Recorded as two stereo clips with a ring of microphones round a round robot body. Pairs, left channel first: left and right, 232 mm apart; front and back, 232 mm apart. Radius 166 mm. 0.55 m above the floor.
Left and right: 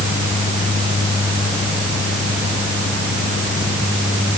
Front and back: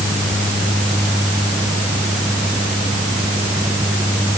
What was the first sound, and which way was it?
Only background noise.